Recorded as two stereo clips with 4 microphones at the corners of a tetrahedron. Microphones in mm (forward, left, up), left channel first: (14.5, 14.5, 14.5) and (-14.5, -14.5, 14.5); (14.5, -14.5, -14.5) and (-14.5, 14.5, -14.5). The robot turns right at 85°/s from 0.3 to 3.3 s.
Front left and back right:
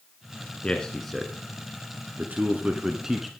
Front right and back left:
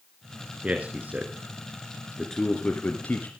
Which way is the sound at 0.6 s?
95° left.